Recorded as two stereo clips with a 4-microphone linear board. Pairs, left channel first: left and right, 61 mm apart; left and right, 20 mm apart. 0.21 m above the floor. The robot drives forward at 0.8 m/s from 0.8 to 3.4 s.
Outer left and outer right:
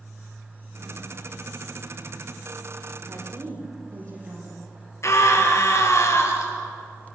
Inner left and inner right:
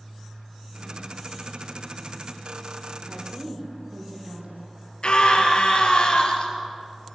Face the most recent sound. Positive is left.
turn(degrees=50)  # may be behind; listen again after turning